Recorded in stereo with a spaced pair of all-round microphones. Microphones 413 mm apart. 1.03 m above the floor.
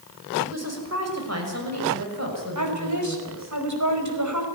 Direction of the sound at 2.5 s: 45° right (ahead or behind).